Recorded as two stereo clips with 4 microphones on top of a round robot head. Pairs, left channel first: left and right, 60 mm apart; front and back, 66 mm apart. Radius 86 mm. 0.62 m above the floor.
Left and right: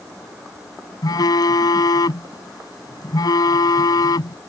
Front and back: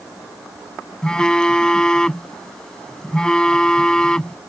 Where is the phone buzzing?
80° left.